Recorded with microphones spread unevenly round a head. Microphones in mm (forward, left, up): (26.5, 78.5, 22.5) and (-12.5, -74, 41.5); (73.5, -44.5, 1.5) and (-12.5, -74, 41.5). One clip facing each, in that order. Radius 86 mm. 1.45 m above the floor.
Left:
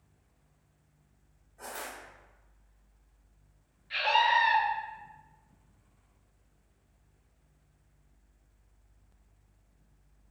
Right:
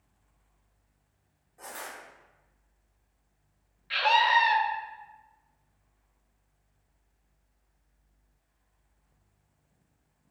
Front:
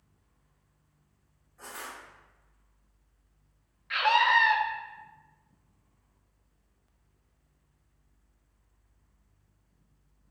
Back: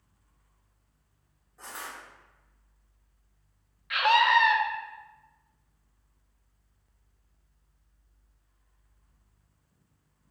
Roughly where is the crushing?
Behind.